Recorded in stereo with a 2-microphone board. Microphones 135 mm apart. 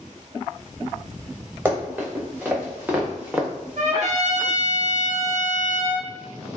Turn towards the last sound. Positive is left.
turn(degrees=-65)  # may be behind; listen again after turning